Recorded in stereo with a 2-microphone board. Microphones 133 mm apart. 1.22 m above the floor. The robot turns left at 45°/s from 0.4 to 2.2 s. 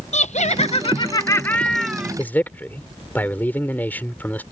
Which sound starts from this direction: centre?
A man speaking, at 2.2 s.